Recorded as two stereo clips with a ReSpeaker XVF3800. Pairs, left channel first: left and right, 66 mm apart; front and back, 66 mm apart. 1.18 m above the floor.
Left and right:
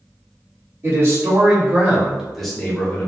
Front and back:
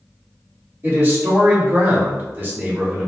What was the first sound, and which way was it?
A man speaking, 130° right.